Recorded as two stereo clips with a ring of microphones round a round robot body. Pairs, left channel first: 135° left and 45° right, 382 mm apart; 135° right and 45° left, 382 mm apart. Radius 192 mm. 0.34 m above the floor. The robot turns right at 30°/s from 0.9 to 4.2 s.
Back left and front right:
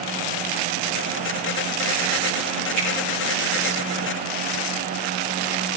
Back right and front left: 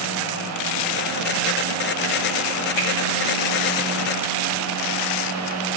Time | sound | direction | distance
2.8 | a finger snap | 115° right | 6 m